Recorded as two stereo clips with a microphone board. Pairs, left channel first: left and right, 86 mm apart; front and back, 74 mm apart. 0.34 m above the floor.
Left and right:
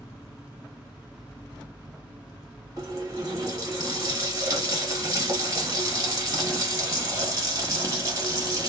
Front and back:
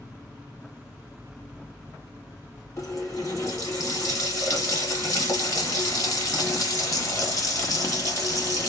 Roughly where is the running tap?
Ahead right.